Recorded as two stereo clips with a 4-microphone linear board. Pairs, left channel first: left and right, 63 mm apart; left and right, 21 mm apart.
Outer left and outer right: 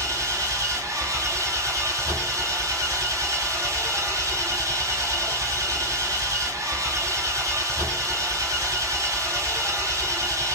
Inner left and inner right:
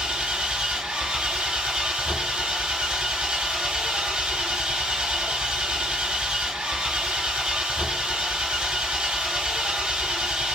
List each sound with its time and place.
0.0 s an engine running: 65° right (ahead or behind), 1.3 m